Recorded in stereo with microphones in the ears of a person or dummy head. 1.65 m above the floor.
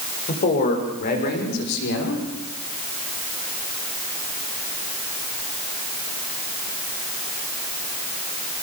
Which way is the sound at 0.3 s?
45° left (ahead or behind).